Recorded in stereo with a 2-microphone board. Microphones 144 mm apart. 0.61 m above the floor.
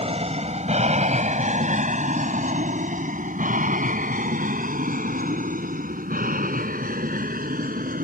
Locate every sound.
0.0 s an aircraft: 45° right (ahead or behind); by 8.0 s 75° right (ahead or behind)